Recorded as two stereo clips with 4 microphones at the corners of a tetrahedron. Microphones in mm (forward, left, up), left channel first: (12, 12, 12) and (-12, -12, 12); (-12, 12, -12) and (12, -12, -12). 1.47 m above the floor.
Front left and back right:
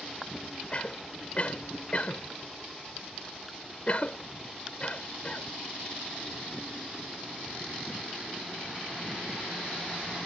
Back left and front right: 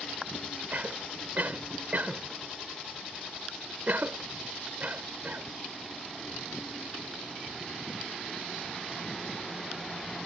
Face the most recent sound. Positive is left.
turn(degrees=-10)